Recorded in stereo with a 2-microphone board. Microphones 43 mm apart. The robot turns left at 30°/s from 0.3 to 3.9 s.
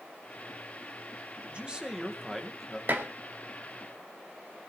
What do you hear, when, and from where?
1.5 s a man speaking: 150° right, 2 m; by 2.8 s 170° left, 2 m
2.9 s dishes clattering: 60° right (ahead or behind), 2 m; by 3.1 s 55° right (ahead or behind), 2 m